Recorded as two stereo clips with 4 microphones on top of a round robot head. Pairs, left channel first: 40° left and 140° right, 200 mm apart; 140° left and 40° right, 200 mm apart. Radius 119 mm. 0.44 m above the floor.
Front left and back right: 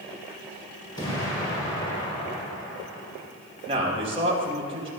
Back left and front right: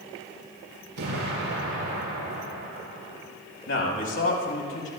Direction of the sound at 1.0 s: 30° right.